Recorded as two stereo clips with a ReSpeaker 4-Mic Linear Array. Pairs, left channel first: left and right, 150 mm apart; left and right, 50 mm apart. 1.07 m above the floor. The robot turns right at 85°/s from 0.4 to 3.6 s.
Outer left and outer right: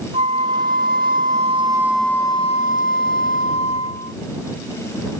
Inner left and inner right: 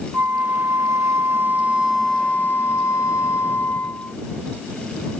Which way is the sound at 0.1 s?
135° right.